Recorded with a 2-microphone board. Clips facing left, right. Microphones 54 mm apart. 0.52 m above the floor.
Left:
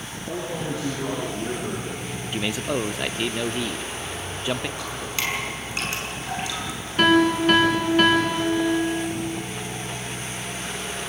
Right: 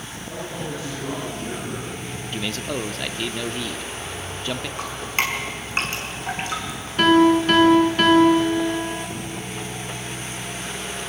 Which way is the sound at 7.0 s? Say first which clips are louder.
Right 3 dB; 5° left (ahead or behind).